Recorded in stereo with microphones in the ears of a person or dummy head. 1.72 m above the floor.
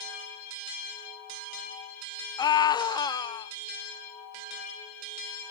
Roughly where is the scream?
Left.